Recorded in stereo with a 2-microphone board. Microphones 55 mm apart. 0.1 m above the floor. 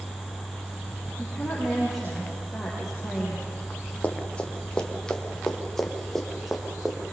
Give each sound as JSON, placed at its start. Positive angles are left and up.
{"t": 1.2, "sound": "a woman speaking", "side_deg": 0, "distance_m": 7.0}
{"t": 4.0, "sound": "running footsteps", "side_deg": 25, "distance_m": 3.0}